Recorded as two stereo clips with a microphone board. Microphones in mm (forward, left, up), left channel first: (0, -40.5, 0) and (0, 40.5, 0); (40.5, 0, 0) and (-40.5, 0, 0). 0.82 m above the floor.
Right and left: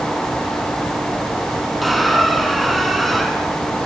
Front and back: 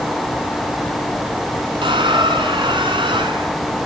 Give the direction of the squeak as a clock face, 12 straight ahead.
6 o'clock.